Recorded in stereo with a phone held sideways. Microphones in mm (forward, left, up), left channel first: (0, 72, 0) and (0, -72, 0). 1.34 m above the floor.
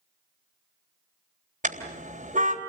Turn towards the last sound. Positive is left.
turn(degrees=-65)  # may be behind; listen again after turning